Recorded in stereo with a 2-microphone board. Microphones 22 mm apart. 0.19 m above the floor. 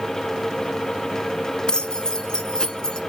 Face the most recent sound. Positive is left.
turn(degrees=35)  # may be behind; listen again after turning